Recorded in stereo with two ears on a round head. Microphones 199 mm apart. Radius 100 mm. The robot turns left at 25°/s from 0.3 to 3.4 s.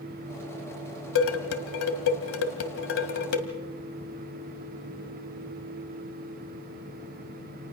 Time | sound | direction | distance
1.1 | dishes clattering | 65° left (ahead or behind) | 1.8 m